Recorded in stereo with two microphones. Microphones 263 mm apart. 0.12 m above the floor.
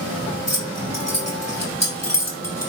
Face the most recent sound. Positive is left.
turn(degrees=70)  # may be behind; listen again after turning